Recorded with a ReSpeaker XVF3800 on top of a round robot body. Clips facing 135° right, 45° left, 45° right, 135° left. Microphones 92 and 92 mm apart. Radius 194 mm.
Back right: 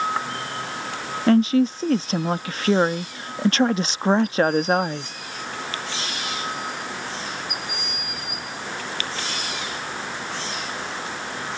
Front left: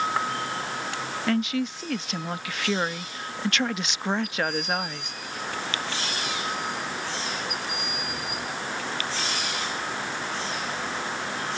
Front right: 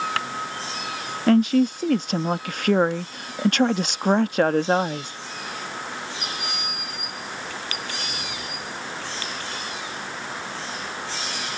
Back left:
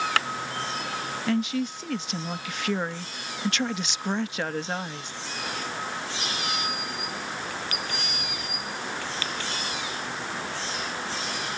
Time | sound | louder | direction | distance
1.3 | a woman speaking | back right 9 dB, front right 10 dB | 80° right | ?